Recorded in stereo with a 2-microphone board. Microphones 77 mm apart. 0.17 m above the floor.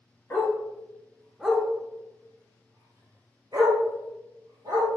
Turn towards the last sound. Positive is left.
turn(degrees=-75)  # may be behind; listen again after turning